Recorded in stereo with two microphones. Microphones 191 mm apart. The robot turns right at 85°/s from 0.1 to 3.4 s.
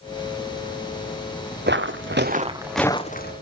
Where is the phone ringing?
I don't hear a phone ringing.